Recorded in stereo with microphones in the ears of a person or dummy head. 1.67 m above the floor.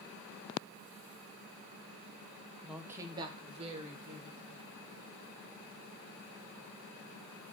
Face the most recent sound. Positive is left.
turn(degrees=-45)  # may be behind; listen again after turning